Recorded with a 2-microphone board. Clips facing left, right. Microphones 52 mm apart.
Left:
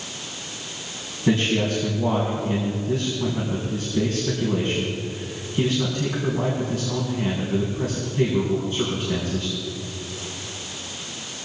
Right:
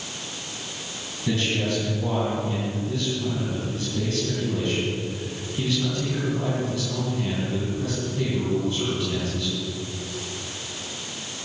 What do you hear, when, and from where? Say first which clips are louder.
1.3 s a man speaking: left 4 dB; 35° left (ahead or behind), 4 m